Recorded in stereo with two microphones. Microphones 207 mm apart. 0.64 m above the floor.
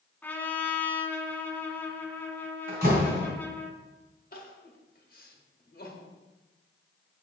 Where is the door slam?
50° right (ahead or behind), 2.5 m.